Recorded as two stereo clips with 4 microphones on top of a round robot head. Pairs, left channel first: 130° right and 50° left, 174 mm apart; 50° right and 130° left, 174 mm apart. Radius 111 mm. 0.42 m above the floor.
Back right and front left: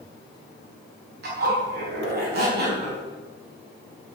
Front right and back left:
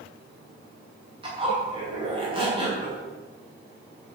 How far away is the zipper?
About 5 m.